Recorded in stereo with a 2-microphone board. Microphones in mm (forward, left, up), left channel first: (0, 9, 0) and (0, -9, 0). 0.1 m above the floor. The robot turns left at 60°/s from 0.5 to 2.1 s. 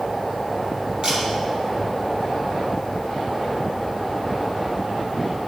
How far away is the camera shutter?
About 2.5 m.